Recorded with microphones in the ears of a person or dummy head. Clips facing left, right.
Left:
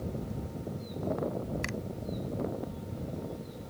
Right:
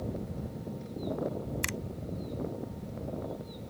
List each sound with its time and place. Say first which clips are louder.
1.6 s a finger snap: left 2 dB; 50° right (ahead or behind)